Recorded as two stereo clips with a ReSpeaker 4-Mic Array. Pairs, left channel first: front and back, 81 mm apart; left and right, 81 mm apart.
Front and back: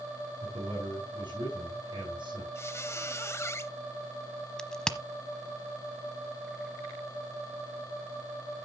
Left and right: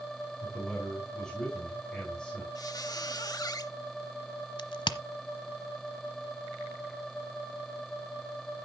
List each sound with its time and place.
0.4 s a man speaking: 170° left, 5.5 m
2.5 s a squeak: 55° left, 0.6 m
4.6 s a crack: 80° left, 1.0 m